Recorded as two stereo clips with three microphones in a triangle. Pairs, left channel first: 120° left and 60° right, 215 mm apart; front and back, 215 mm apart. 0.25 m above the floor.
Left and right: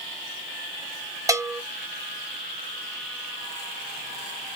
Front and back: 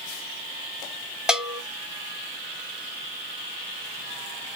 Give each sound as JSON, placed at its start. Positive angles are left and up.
{"t": 1.3, "sound": "a bell", "azimuth_deg": -100, "distance_m": 0.6}